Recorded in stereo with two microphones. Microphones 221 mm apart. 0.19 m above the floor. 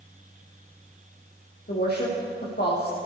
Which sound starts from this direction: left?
A woman speaking, at 1.7 s.